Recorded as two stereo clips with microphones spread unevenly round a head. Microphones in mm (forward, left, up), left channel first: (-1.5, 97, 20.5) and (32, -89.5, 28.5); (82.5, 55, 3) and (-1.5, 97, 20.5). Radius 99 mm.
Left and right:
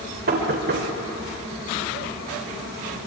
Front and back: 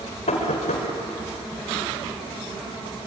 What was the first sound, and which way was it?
Knocking, 40° right.